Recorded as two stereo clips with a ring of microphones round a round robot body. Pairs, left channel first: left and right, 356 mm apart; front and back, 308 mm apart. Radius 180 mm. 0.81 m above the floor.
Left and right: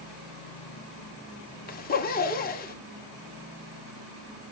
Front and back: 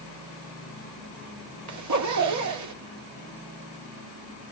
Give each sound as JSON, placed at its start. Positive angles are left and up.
{"t": 1.7, "sound": "a zipper", "azimuth_deg": 155, "distance_m": 2.5}